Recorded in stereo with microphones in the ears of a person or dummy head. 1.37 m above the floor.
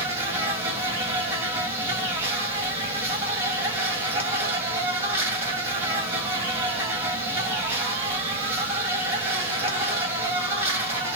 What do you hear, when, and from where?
0.0 s an insect: 15° right (ahead or behind), 1.7 m